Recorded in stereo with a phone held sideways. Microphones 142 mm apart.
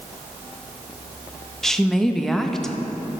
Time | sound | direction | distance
1.6 | a woman speaking | 5° left (ahead or behind) | 0.5 m